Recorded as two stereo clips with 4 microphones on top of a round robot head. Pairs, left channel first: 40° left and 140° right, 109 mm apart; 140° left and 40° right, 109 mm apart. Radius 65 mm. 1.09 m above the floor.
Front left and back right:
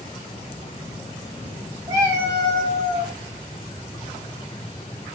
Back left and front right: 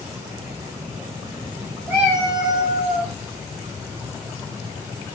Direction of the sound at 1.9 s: 110° right.